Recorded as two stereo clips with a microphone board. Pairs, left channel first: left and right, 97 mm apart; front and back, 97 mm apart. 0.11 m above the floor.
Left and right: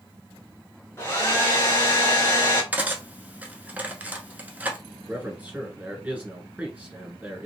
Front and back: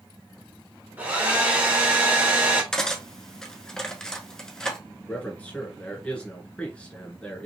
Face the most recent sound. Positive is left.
turn(degrees=-50)